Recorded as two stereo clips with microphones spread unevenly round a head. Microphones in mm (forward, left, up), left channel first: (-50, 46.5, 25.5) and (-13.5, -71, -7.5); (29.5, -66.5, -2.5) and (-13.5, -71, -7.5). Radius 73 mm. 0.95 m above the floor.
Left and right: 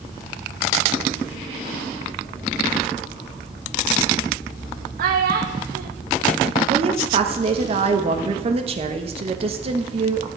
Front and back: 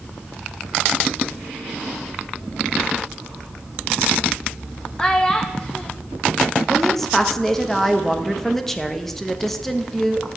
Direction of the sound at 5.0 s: 70° right.